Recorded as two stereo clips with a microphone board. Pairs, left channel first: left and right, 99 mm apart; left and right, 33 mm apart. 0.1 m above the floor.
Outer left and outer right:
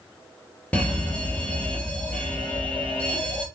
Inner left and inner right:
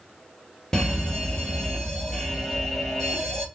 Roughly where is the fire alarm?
Centre.